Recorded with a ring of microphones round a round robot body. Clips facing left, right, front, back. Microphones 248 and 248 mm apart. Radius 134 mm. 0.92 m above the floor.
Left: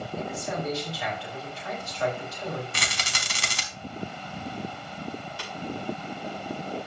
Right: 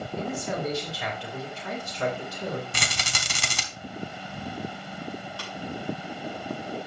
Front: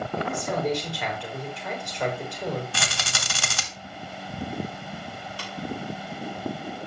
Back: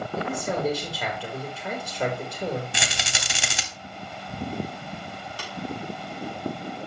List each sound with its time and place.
0.2 s a man speaking: 130° right, 3 m
2.7 s a rattle: 105° right, 1.8 m
5.4 s tapping: 165° left, 4 m